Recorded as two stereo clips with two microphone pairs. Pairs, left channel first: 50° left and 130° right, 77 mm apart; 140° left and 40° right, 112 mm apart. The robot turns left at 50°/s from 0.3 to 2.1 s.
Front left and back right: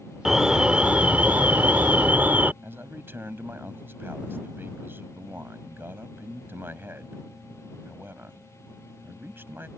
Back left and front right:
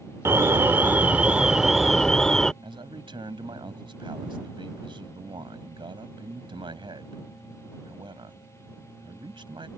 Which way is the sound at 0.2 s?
55° right.